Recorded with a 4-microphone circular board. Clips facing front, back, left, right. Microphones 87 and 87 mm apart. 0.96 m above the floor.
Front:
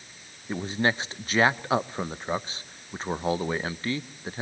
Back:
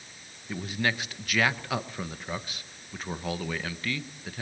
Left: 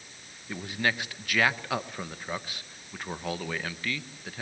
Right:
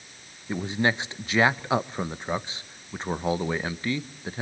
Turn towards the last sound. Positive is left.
turn(degrees=-40)